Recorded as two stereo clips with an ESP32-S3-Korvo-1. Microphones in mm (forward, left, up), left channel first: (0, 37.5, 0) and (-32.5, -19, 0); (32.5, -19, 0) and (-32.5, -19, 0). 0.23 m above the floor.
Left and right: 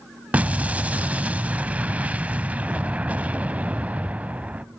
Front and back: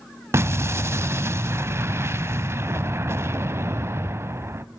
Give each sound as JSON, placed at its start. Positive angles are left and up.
{"t": 0.3, "sound": "an explosion", "azimuth_deg": 180, "distance_m": 0.5}